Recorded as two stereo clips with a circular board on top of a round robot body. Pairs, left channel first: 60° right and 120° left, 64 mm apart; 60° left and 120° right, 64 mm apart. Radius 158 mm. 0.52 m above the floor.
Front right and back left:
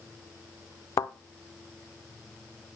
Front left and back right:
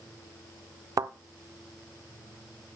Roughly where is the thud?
Right.